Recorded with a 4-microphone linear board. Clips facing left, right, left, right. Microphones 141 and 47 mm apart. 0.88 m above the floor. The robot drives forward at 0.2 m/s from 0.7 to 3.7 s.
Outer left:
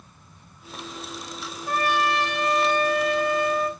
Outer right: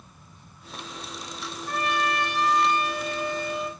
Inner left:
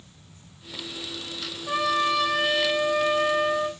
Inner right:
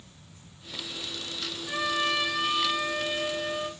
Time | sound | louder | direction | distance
1.7 | a trumpet | outer left 3 dB, inner left 5 dB | 65° left (ahead or behind) | 2.5 m